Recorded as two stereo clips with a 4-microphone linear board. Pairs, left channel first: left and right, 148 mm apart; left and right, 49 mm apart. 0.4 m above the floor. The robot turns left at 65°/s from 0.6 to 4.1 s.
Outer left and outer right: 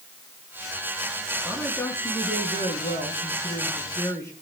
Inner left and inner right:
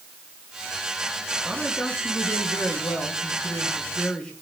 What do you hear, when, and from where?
1.4 s a woman speaking: 170° right, 5 m; by 4.3 s 20° left, 5 m